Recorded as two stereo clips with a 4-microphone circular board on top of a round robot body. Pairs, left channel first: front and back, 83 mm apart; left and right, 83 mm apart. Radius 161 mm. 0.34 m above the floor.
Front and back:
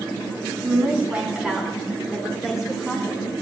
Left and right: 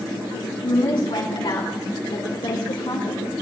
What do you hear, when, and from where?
0.6 s a woman speaking: 115° left, 3.5 m; by 3.3 s 90° left, 5.5 m